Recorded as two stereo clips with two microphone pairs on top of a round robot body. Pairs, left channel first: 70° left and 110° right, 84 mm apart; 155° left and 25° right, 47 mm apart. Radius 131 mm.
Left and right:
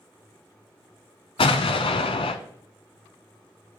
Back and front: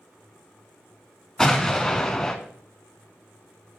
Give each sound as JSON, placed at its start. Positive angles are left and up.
{"t": 1.4, "sound": "an explosion", "azimuth_deg": 70, "distance_m": 0.6}